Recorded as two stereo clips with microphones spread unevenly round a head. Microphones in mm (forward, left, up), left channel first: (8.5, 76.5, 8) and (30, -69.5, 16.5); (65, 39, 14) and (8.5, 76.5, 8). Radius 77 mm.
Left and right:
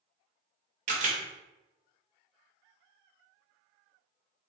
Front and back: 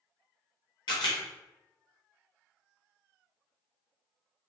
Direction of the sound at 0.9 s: 55° right.